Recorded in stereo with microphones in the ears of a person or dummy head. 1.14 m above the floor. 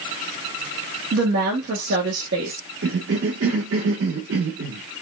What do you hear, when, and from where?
1.1 s a woman speaking: 65° right (ahead or behind), 1.4 m
2.8 s a cough: 70° right (ahead or behind), 1.3 m